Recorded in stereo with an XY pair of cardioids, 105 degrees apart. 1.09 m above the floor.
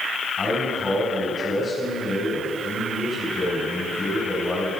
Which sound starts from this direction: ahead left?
A man speaking, at 0.4 s.